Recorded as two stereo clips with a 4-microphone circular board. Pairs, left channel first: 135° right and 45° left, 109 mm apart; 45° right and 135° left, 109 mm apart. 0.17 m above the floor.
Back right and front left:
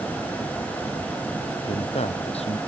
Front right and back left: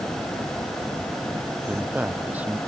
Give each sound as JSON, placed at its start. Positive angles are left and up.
{"t": 1.7, "sound": "a man speaking", "azimuth_deg": -150}